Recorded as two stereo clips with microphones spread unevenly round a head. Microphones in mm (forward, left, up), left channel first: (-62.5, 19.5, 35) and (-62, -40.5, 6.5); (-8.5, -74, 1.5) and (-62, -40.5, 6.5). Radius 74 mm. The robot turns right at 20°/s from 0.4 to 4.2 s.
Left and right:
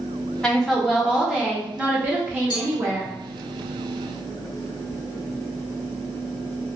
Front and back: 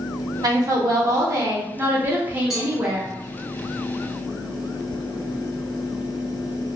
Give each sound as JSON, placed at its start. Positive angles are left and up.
{"t": 0.4, "sound": "a woman speaking", "azimuth_deg": 175, "distance_m": 0.8}
{"t": 2.5, "sound": "a cowbell", "azimuth_deg": 60, "distance_m": 0.7}